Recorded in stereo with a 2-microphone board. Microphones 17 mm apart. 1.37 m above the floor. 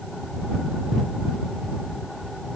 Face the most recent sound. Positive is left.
No sound to turn to.